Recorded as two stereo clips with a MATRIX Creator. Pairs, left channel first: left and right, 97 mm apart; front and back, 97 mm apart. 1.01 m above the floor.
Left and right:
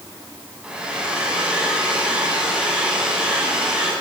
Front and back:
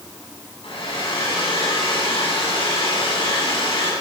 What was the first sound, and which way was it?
A hair dryer, 10° right.